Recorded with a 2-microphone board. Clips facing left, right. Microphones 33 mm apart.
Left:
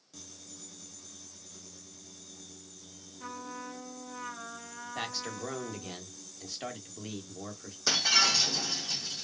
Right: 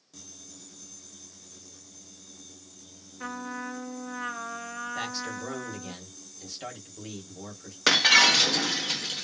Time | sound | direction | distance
3.2 | a trumpet | 50° right (ahead or behind) | 0.7 m
5.0 | a man speaking | 10° left (ahead or behind) | 1.0 m
7.9 | breaking glass | 80° right | 0.6 m